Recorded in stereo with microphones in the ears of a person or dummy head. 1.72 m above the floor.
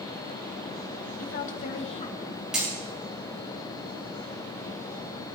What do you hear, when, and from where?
1.2 s a woman speaking: 45° left (ahead or behind), 1.7 m; by 2.4 s 15° left (ahead or behind), 1.6 m
2.5 s hammering: 5° right (ahead or behind), 2.5 m